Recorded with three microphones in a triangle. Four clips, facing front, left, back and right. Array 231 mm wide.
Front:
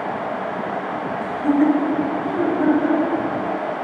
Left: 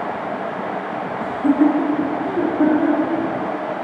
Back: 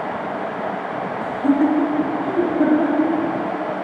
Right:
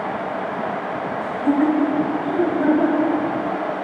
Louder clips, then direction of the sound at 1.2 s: Left 3 dB, even; 100° left.